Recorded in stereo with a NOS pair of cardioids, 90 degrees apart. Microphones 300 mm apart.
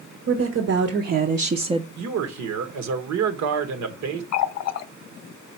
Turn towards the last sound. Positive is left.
turn(degrees=65)